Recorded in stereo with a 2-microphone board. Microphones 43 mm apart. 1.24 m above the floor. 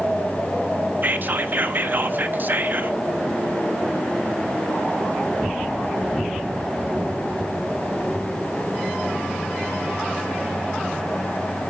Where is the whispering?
45° right (ahead or behind), 0.7 m.